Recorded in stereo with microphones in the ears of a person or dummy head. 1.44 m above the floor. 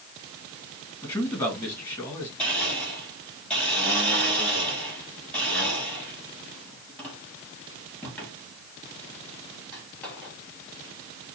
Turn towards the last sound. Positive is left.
turn(degrees=5)  # may be behind; listen again after turning